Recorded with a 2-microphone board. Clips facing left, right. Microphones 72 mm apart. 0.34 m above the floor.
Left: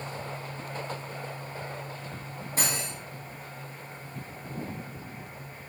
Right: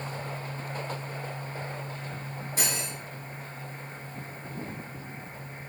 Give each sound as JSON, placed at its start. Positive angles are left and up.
{"t": 2.6, "sound": "cutlery clinking", "side_deg": 50, "distance_m": 1.7}